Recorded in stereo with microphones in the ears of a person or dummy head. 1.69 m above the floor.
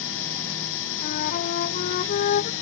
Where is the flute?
50° left (ahead or behind).